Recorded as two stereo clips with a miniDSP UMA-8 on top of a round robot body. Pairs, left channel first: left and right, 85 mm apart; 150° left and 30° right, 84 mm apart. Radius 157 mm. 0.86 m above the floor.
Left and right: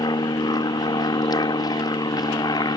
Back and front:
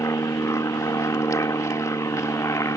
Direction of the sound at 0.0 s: 105° left.